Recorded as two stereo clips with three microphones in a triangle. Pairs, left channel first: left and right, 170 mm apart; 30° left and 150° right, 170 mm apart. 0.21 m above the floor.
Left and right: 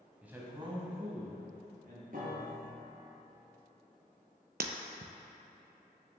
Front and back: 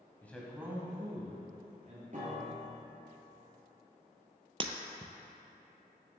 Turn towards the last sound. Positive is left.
turn(degrees=-95)